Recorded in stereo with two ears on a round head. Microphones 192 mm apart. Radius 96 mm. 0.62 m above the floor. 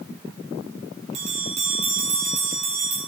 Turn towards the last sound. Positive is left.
turn(degrees=-30)  # may be behind; listen again after turning